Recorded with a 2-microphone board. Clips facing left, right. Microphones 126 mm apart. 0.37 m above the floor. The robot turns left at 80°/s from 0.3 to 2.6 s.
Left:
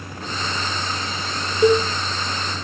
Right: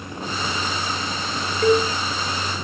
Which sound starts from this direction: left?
A cowbell, at 1.6 s.